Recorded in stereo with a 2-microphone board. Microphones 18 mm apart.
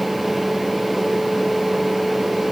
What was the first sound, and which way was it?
Only background noise.